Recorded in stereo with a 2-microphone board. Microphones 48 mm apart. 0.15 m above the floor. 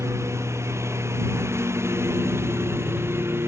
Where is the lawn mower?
80° right; by 3.5 s 60° right (ahead or behind).